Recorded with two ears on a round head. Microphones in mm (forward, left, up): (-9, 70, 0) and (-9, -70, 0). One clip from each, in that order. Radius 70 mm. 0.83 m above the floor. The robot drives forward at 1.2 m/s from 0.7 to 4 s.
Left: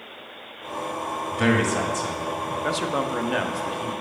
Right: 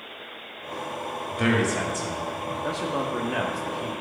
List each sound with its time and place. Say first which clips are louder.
1.3 s a man speaking: left 2 dB; 10° left (ahead or behind), 1.8 m; by 2.5 s 5° left (ahead or behind), 3 m
2.6 s a man speaking: left 3 dB; 55° left (ahead or behind), 0.8 m; by 4.0 s 20° left (ahead or behind), 2.0 m